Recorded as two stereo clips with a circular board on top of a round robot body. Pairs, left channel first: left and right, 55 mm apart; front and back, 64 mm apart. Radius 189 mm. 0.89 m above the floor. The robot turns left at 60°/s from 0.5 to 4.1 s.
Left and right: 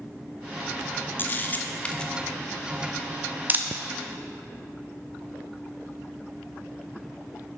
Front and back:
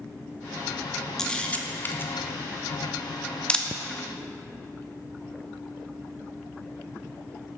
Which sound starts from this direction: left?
A camera shutter, at 1.2 s.